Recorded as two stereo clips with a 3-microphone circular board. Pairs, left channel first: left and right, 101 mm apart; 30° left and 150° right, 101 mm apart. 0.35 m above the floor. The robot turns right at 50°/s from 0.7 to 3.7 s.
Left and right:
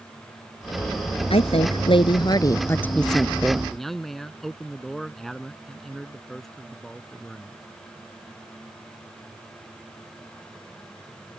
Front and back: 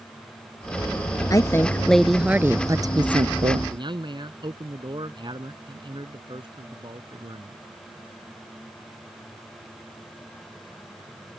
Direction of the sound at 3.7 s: 175° left.